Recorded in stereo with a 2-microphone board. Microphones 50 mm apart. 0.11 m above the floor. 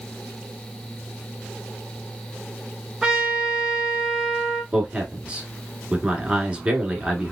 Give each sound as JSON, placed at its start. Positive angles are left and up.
{"t": 3.0, "sound": "a trumpet", "side_deg": -5, "distance_m": 1.2}
{"t": 4.7, "sound": "a man speaking", "side_deg": -20, "distance_m": 1.1}